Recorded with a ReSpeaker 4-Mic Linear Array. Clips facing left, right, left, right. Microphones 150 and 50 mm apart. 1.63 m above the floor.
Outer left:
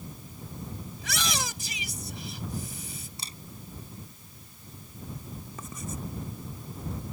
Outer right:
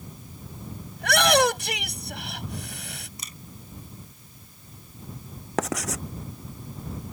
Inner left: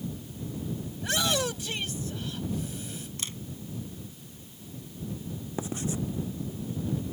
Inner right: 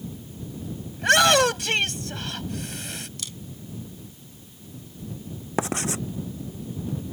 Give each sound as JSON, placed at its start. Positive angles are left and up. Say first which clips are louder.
{"t": 1.0, "sound": "a shout", "louder": "outer right 15 dB, inner right 12 dB", "side_deg": -65}
{"t": 3.2, "sound": "a camera shutter", "louder": "even, even", "side_deg": 30}
{"t": 5.6, "sound": "writing", "louder": "outer right 13 dB, inner right 6 dB", "side_deg": -85}